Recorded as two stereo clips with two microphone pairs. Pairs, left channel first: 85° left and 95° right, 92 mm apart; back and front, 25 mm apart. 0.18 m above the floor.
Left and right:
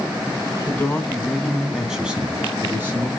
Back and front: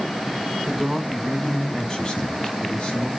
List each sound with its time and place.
0.7 s a man speaking: 80° left, 1.0 m; by 3.1 s 155° right, 1.5 m